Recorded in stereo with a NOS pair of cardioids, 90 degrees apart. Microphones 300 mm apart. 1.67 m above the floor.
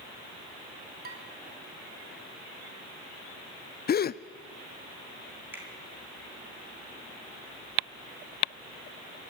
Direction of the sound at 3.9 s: 35° left.